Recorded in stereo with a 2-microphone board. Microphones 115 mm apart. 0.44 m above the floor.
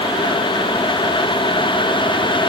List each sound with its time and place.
Only background noise.